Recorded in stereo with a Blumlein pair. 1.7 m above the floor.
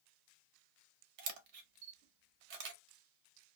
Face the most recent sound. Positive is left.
turn(degrees=-45)